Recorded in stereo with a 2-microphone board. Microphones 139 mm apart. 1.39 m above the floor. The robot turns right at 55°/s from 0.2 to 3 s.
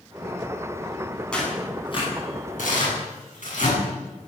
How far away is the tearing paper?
About 9.5 m.